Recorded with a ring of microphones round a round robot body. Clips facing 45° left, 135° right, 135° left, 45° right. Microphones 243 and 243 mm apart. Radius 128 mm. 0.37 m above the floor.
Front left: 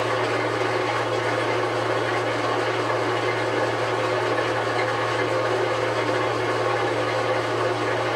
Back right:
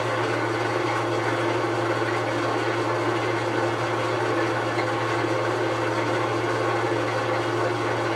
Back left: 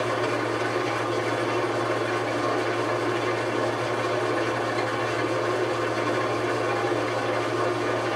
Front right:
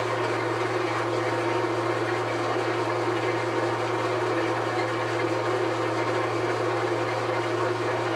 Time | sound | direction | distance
0.0 | an engine running | 155° right | 3.5 m